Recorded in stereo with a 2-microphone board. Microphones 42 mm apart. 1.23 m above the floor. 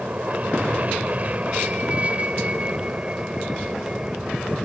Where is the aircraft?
35° right (ahead or behind); by 4.6 s 20° right (ahead or behind).